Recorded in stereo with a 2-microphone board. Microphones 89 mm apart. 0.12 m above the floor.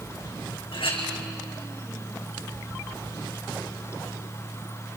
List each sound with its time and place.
0.7 s a clink: 75° left (ahead or behind), 4.5 m